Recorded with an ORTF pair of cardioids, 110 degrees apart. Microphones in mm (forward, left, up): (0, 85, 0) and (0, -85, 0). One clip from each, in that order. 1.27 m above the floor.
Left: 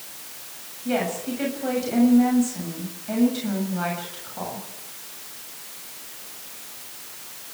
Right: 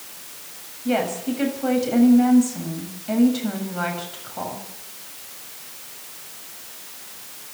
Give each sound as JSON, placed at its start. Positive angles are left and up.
{"t": 0.8, "sound": "a woman speaking", "azimuth_deg": -20, "distance_m": 7.0}